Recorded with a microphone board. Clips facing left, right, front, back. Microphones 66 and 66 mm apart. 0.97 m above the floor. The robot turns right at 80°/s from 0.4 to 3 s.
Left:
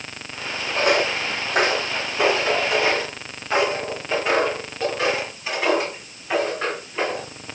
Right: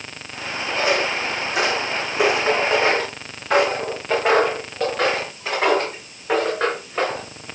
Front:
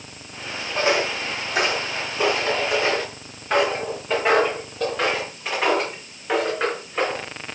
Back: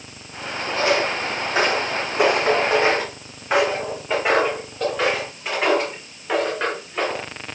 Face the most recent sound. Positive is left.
turn(degrees=-85)